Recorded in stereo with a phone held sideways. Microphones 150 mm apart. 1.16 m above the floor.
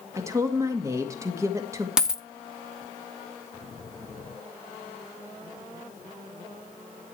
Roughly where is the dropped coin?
Centre.